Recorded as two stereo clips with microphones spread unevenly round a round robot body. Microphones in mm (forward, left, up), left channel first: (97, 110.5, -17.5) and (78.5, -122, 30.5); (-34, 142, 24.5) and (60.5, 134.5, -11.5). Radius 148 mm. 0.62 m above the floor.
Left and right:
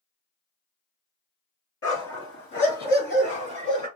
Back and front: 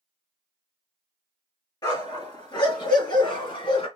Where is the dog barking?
135° left, 3.5 m; by 3.9 s 165° left, 2.5 m.